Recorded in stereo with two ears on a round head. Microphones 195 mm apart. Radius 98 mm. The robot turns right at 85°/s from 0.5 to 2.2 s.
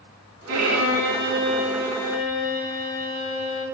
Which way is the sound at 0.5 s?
110° right.